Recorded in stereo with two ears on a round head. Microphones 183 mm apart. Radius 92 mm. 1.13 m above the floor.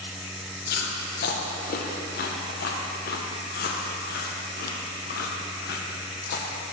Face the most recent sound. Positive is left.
turn(degrees=50)  # may be behind; listen again after turning